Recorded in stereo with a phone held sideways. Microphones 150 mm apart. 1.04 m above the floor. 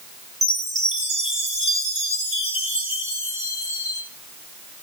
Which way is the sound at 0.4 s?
50° right (ahead or behind).